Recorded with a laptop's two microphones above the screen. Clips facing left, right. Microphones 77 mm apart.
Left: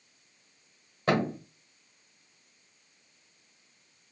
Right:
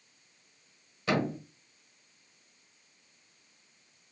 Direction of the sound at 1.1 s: 45° left (ahead or behind).